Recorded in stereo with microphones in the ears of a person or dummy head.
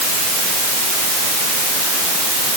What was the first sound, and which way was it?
Only background noise.